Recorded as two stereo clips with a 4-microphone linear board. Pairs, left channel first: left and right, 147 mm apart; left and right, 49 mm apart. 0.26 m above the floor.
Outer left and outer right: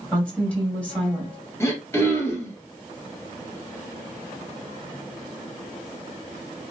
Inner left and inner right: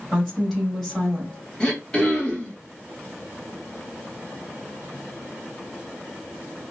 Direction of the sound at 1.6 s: 15° left (ahead or behind).